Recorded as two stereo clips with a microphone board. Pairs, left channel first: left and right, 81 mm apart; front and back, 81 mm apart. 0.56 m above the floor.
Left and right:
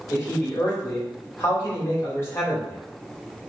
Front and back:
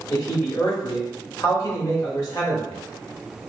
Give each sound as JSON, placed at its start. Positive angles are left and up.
{"t": 0.1, "sound": "a man speaking", "azimuth_deg": 35, "distance_m": 2.0}